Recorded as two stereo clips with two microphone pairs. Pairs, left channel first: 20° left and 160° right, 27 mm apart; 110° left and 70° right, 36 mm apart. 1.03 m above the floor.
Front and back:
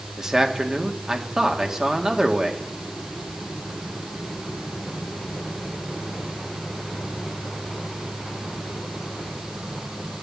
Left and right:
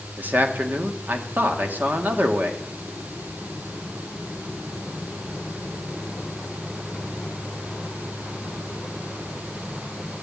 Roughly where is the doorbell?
No doorbell in this recording.